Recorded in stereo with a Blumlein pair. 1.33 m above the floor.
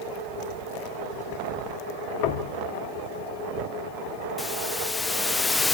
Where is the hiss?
10° left, 0.6 m.